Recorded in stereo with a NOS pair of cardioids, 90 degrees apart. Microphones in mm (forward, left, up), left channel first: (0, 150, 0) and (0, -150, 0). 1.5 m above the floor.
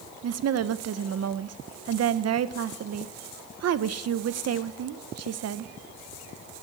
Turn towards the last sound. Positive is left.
turn(degrees=-50)